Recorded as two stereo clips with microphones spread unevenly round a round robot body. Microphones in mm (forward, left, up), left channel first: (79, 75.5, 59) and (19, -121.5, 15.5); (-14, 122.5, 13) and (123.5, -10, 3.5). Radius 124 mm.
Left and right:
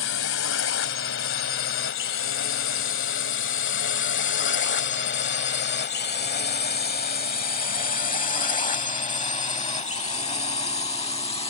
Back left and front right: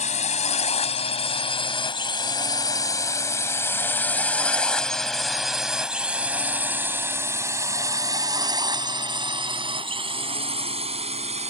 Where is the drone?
90° left; by 11.5 s 5° left.